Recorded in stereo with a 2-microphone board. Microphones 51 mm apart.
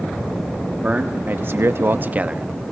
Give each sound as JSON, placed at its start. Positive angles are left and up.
{"t": 0.8, "sound": "a man speaking", "side_deg": -30, "distance_m": 1.3}